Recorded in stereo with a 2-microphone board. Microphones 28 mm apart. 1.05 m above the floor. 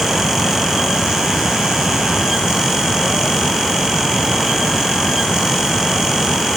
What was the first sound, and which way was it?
Only background noise.